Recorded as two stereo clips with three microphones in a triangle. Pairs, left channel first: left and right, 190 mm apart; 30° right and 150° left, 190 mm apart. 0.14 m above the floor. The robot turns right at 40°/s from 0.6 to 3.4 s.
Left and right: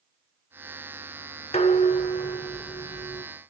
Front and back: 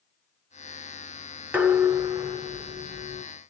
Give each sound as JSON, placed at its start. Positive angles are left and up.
{"t": 1.5, "sound": "dishes clattering", "azimuth_deg": 75, "distance_m": 0.9}